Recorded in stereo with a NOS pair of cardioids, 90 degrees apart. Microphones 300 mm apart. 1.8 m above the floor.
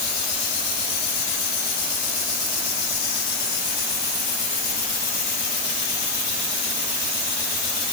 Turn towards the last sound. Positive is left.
No sound to turn to.